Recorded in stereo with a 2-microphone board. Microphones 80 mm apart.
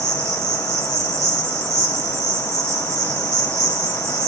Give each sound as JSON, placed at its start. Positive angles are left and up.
{"t": 0.0, "sound": "an insect", "side_deg": -35, "distance_m": 2.0}